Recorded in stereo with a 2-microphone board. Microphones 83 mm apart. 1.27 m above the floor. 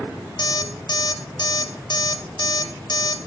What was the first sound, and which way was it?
An alarm clock, 60° left (ahead or behind).